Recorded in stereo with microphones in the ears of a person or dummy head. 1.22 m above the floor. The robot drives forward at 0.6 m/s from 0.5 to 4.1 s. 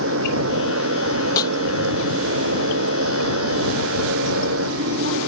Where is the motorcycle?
80° right.